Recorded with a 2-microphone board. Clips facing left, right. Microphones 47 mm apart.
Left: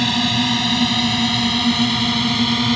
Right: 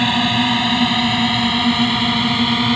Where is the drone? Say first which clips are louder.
Right 3 dB; 20° right (ahead or behind); by 2.8 s 15° right (ahead or behind).